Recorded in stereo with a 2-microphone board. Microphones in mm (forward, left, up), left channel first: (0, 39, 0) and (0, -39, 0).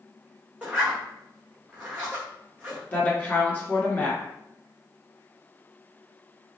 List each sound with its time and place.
0.6 s a zipper: 15° right (ahead or behind), 1.5 m
2.9 s a woman speaking: 25° left (ahead or behind), 1.6 m